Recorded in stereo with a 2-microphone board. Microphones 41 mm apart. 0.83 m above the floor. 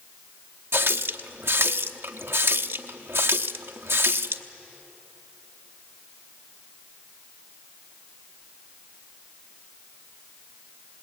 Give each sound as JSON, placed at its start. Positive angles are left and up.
{"t": 0.7, "sound": "a running tap", "side_deg": -70, "distance_m": 0.9}